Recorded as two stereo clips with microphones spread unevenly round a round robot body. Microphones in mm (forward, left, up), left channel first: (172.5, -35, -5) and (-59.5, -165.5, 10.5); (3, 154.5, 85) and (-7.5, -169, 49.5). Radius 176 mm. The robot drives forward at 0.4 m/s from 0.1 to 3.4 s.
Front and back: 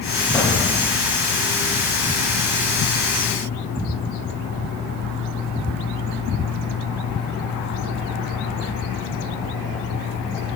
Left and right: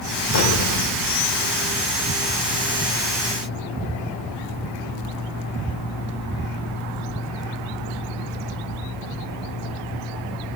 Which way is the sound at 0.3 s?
105° left.